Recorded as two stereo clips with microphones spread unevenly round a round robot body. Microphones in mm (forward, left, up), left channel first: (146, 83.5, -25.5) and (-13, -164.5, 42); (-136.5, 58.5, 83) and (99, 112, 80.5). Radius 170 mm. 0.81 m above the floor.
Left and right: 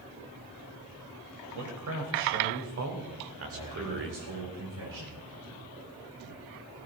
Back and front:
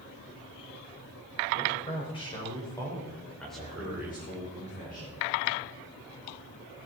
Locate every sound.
1.5 s a man speaking: 100° right, 4.5 m; by 4.2 s 65° right, 2.5 m
3.5 s a man speaking: 105° right, 4 m